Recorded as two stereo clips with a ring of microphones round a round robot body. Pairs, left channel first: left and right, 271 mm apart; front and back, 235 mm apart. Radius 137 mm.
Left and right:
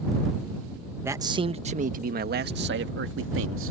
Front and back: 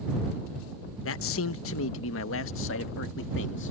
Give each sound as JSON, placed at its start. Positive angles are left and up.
{"t": 1.1, "sound": "a man speaking", "azimuth_deg": -10}